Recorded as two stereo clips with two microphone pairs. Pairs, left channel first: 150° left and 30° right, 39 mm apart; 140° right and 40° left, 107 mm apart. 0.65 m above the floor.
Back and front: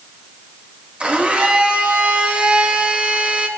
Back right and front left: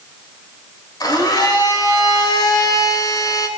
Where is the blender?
90° right, 2.5 m.